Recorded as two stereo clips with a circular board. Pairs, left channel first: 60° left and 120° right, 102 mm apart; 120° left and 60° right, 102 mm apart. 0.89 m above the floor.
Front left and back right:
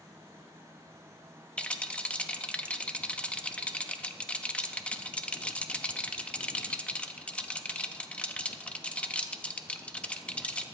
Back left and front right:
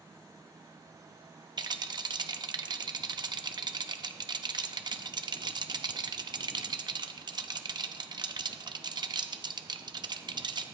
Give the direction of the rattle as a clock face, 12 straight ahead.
1 o'clock.